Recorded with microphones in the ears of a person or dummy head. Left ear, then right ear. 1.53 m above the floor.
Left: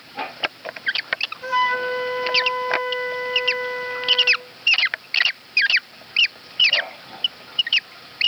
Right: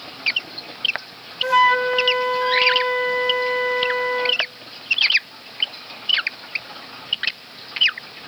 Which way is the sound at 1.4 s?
20° right (ahead or behind).